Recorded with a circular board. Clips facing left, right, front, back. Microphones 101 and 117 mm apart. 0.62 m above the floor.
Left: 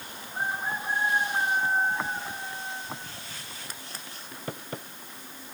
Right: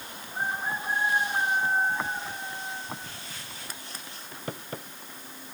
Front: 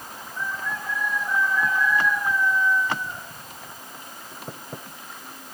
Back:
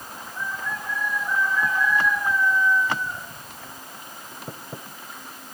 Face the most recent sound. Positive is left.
No sound to turn to.